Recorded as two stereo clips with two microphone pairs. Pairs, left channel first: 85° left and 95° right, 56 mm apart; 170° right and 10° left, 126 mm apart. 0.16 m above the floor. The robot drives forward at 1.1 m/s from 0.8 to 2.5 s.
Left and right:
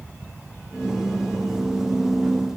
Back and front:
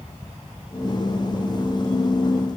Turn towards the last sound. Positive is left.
No sound to turn to.